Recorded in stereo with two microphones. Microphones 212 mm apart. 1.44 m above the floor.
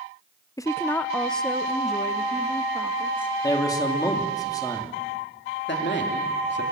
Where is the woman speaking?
15° left (ahead or behind), 0.6 m; by 3.3 s 5° right (ahead or behind), 2 m.